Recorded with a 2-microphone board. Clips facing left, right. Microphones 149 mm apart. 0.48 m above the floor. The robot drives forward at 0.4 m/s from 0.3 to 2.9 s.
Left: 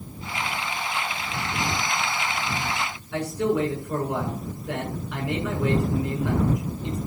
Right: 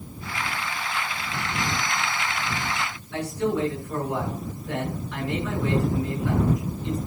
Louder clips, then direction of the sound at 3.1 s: Left 2 dB; 75° left (ahead or behind).